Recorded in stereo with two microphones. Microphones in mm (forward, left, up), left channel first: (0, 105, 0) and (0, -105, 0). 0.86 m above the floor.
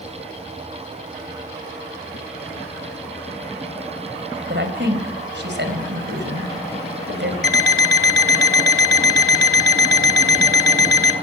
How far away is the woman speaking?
About 4.5 m.